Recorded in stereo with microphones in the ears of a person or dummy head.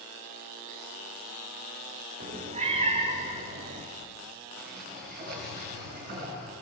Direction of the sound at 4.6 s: 55° right (ahead or behind).